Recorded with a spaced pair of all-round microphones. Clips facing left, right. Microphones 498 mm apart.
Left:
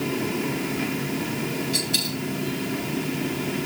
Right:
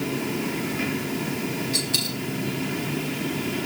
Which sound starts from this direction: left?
A dropped coin, at 1.7 s.